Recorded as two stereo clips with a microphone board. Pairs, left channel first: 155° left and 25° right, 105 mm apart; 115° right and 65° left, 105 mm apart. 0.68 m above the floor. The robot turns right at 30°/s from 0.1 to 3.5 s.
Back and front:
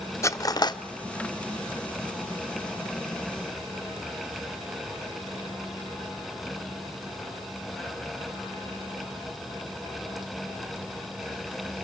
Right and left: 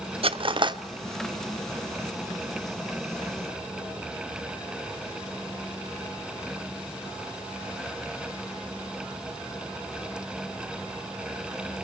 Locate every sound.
0.2 s cutlery clinking: 95° left, 0.7 m; by 0.8 s 110° left, 0.7 m